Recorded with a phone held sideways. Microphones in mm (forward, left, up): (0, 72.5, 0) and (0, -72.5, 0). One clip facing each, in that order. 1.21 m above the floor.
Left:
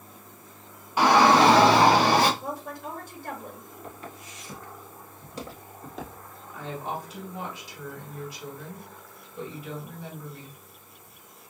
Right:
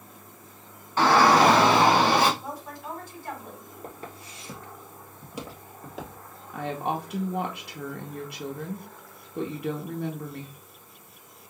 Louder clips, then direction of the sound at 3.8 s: Right 2 dB; 40° right (ahead or behind).